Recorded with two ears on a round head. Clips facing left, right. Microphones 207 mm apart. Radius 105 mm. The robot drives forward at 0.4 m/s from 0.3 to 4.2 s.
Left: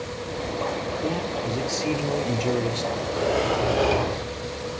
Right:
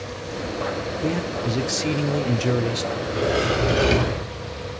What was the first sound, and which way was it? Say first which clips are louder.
A man speaking: right 4 dB; 25° right (ahead or behind).